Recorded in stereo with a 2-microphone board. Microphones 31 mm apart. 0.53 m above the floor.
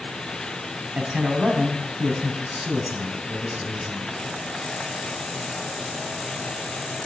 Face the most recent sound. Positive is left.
turn(degrees=-35)  # may be behind; listen again after turning